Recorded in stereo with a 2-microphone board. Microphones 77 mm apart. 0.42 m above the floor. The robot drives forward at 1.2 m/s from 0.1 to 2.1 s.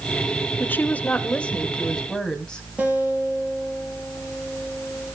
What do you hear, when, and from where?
0.6 s a woman speaking: 25° left (ahead or behind), 0.8 m; by 2.6 s 10° left (ahead or behind), 2 m
2.8 s a guitar: 15° right (ahead or behind), 5 m